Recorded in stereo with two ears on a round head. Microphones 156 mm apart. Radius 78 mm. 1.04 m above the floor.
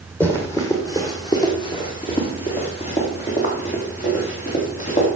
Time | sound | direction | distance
0.2 | running footsteps | 10° left (ahead or behind) | 2.0 m